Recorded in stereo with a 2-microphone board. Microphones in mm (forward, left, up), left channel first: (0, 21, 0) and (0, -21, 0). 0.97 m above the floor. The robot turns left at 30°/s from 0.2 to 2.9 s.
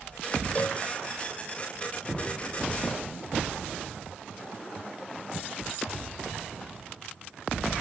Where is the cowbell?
40° left (ahead or behind); by 0.8 s 30° left (ahead or behind).